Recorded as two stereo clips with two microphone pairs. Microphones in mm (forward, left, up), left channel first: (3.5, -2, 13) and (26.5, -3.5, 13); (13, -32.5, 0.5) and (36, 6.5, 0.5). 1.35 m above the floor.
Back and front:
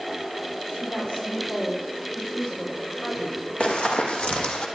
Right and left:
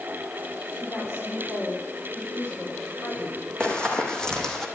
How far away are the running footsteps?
About 4 m.